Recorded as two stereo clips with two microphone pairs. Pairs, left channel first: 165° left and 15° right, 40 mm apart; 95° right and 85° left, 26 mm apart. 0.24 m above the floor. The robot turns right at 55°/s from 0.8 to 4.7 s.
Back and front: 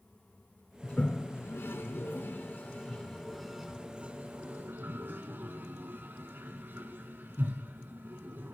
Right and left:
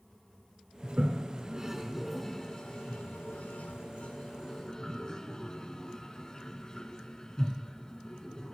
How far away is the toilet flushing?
About 0.8 m.